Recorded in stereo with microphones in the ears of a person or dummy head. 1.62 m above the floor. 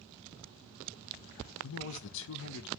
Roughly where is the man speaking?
Left.